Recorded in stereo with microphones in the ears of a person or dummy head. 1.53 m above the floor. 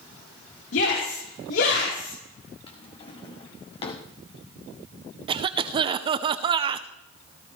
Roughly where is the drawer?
Left.